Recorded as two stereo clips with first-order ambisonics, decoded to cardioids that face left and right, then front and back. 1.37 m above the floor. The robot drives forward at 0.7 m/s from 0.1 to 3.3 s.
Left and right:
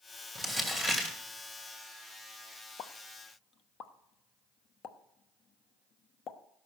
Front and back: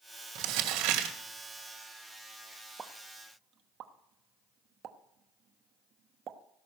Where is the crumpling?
170° left, 2 m.